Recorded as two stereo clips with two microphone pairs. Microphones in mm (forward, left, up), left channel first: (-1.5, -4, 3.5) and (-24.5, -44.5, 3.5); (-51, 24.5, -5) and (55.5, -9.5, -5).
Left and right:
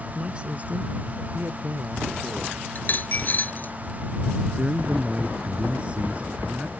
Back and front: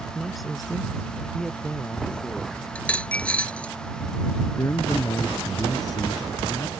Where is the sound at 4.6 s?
165° right.